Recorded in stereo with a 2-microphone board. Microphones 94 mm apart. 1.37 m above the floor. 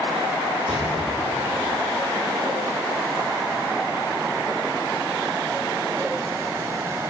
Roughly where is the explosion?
Right.